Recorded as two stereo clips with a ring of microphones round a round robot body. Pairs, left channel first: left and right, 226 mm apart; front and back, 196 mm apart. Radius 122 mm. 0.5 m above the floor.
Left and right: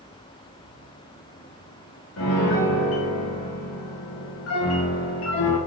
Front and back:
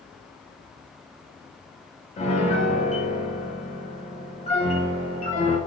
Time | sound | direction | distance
2.2 | a piano | 60° left | 2.5 m